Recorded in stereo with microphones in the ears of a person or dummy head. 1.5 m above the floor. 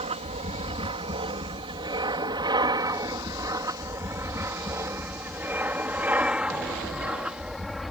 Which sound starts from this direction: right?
An aircraft, at 0.0 s.